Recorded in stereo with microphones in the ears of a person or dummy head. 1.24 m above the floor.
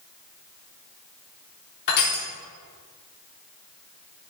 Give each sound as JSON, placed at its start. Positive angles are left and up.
{"t": 1.9, "sound": "crushing", "side_deg": 55, "distance_m": 4.0}